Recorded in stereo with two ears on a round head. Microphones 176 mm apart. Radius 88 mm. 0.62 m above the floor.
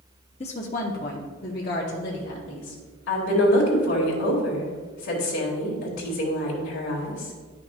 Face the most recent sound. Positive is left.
turn(degrees=75)  # may be behind; listen again after turning